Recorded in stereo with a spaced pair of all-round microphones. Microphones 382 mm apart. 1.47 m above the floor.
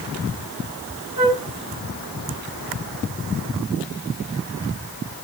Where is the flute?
55° right (ahead or behind), 2.5 m.